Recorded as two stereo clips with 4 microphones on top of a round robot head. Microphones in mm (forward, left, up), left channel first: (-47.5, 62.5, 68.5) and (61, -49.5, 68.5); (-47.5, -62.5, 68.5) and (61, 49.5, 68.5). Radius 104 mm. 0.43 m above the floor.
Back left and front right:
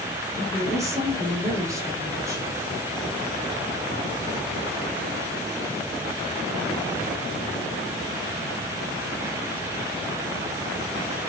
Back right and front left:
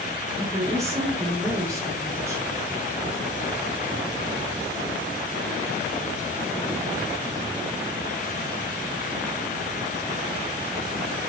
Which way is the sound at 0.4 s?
Straight ahead.